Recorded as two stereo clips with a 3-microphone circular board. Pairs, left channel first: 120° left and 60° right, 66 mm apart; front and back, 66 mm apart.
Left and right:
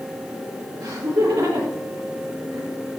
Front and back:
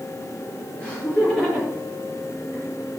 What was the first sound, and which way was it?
Laughter, 75° right.